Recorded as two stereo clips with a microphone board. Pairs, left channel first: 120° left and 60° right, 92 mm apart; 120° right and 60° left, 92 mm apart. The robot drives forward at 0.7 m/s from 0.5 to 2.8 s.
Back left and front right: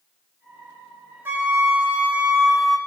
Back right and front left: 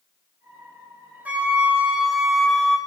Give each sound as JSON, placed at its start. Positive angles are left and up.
{"t": 1.2, "sound": "a flute", "azimuth_deg": -5, "distance_m": 1.2}